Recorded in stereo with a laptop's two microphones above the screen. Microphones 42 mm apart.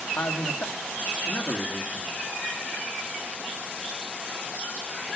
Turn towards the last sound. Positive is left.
turn(degrees=75)  # may be behind; listen again after turning